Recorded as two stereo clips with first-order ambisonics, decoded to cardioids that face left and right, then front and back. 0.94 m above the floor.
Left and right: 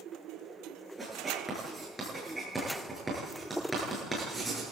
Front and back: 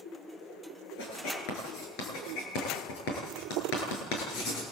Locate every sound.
1.0 s writing: 10° right, 8.5 m